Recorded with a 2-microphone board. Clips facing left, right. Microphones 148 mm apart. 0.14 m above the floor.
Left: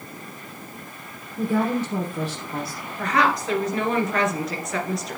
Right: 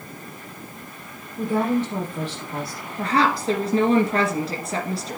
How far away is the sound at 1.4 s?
About 3.5 m.